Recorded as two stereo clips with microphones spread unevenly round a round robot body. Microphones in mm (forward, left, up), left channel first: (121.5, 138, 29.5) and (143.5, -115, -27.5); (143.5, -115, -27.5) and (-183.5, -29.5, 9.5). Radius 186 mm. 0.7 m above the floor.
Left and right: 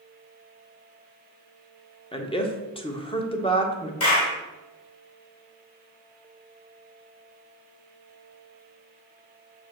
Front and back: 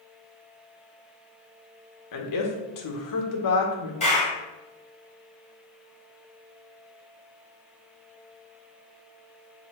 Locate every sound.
2.1 s a woman speaking: 20° left, 1.5 m
4.0 s a clap: 60° left, 2.5 m